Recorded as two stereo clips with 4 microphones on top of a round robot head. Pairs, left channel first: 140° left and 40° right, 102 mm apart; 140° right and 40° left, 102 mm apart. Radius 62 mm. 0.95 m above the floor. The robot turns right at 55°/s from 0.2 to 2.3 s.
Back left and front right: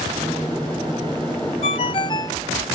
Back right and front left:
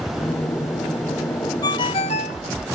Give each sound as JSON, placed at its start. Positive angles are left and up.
{"t": 1.6, "sound": "a ringtone", "azimuth_deg": 165}